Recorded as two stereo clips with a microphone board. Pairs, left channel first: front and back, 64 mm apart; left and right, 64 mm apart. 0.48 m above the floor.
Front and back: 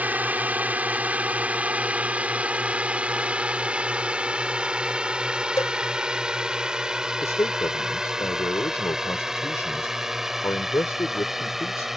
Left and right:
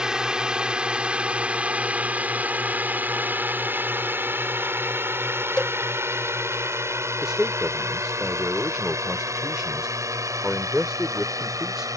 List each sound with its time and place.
0.0 s a drone: 155° right; by 12.0 s 95° right
5.6 s a cowbell: 15° left
7.2 s a man speaking: 10° right